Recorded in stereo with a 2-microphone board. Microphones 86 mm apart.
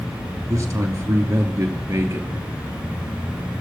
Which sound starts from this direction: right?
A man speaking, at 0.5 s.